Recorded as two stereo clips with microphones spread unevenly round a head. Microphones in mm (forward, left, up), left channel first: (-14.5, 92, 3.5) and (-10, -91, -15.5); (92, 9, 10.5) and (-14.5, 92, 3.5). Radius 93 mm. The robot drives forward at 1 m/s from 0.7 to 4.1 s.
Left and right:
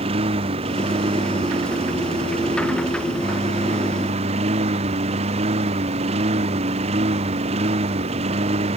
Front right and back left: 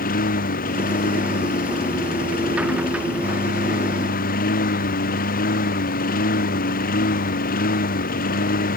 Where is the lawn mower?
25° right; by 8.8 s 30° right.